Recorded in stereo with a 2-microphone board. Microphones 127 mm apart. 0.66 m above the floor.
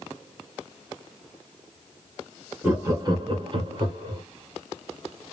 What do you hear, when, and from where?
2.6 s laughter: 15° right (ahead or behind), 1.0 m; by 4.2 s 35° right (ahead or behind), 1.6 m